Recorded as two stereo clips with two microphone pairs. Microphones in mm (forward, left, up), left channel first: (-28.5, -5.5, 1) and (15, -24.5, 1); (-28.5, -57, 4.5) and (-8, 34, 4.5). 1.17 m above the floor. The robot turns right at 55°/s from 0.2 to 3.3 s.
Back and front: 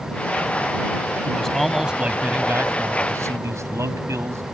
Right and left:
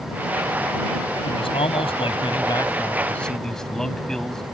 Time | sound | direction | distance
1.2 | a man speaking | 135° right | ?